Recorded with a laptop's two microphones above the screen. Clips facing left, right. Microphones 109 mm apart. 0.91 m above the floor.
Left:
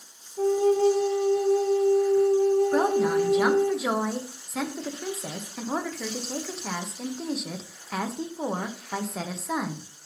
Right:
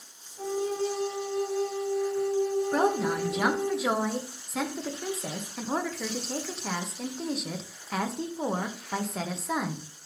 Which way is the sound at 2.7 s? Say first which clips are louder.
Left 4 dB; 5° left (ahead or behind).